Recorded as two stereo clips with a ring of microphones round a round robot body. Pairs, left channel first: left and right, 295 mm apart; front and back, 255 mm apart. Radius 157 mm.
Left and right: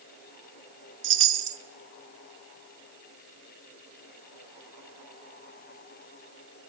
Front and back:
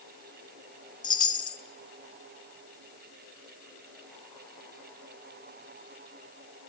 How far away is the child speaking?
I don't hear a child speaking.